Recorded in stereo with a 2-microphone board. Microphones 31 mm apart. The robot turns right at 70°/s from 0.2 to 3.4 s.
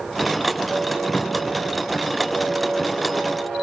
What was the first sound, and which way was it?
A cupboard door, 145° left.